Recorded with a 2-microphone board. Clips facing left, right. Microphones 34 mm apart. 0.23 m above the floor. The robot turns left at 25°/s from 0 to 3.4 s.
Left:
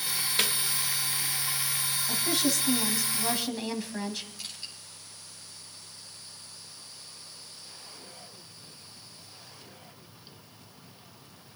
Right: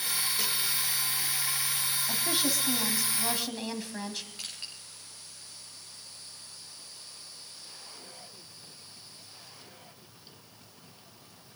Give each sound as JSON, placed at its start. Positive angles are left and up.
{"t": 0.4, "sound": "a snare drum", "side_deg": 70, "distance_m": 1.5}
{"t": 2.1, "sound": "a woman speaking", "azimuth_deg": -150, "distance_m": 1.8}
{"t": 4.4, "sound": "crushing", "side_deg": -55, "distance_m": 6.5}